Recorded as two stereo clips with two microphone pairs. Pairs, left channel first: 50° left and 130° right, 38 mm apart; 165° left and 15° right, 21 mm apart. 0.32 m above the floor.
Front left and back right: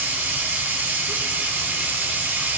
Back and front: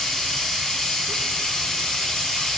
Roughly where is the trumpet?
No trumpet in this recording.